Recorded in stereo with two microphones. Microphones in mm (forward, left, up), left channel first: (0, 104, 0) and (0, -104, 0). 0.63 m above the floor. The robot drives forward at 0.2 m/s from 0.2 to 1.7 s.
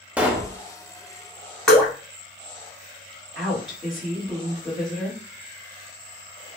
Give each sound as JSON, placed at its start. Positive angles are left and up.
{"t": 0.2, "sound": "a pop", "side_deg": -5, "distance_m": 0.5}
{"t": 1.7, "sound": "dripping", "side_deg": 0, "distance_m": 1.1}
{"t": 3.4, "sound": "a woman speaking", "side_deg": 15, "distance_m": 1.4}